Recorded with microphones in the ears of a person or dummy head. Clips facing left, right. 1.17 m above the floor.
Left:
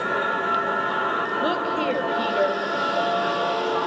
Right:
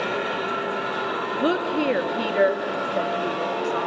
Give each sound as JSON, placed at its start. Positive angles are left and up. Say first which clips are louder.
{"t": 1.4, "sound": "a woman speaking", "louder": "right 4 dB", "side_deg": -20, "distance_m": 1.6}